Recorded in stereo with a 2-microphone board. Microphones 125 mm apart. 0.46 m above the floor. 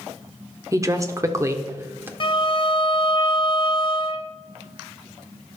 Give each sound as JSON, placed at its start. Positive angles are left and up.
{"t": 0.7, "sound": "a woman speaking", "side_deg": -25, "distance_m": 1.0}
{"t": 2.2, "sound": "a violin", "side_deg": 40, "distance_m": 0.7}